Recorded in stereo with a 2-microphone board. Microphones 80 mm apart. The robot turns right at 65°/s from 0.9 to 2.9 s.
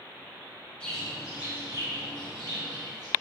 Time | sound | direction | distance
0.8 | a bird | 165° left | 1.1 m